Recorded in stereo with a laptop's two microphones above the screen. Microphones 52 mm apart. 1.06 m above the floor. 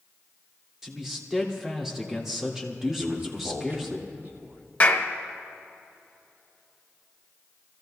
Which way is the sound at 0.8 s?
5° right (ahead or behind).